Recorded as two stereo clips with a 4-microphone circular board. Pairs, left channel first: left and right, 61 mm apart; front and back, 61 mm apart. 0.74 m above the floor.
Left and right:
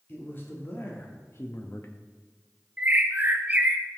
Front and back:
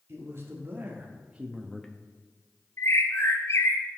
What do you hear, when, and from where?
0.1 s a man speaking: 140° left, 1.8 m; by 1.9 s 70° left, 0.7 m
2.8 s a bird: 30° right, 0.6 m